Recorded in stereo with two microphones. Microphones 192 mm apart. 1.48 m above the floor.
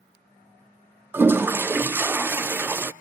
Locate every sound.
1.1 s a toilet flushing: 10° right (ahead or behind), 0.5 m